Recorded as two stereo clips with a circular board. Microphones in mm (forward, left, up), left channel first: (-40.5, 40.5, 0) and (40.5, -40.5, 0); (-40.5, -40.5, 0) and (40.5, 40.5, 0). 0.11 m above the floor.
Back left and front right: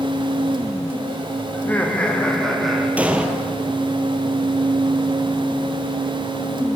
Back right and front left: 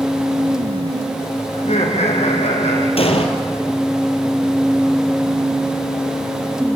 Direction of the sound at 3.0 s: 120° right.